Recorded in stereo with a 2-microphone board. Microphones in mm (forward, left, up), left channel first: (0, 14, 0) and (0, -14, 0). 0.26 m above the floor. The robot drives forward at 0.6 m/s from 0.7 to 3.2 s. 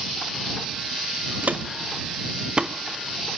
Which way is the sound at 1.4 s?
80° right.